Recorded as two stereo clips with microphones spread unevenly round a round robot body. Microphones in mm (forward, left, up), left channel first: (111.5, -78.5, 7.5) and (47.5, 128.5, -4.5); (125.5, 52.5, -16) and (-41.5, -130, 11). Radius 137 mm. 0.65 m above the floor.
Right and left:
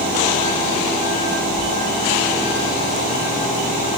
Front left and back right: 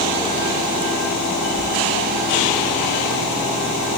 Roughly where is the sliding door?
Behind.